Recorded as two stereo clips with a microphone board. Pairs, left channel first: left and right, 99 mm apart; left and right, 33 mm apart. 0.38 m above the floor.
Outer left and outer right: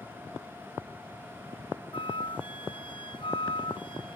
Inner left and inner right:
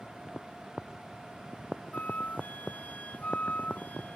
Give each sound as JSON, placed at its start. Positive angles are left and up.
{"t": 1.9, "sound": "a flute", "side_deg": 60}